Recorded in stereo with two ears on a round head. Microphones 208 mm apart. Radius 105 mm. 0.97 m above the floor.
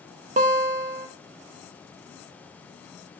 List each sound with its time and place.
0.4 s a guitar: 30° right (ahead or behind), 0.5 m